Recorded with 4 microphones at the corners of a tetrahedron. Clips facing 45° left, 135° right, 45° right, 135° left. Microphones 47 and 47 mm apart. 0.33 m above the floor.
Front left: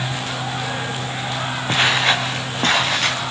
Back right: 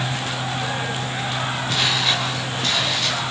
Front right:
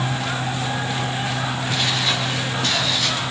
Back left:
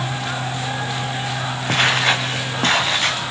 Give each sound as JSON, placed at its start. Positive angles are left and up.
{"t": 1.7, "sound": "footsteps", "azimuth_deg": 100, "distance_m": 3.5}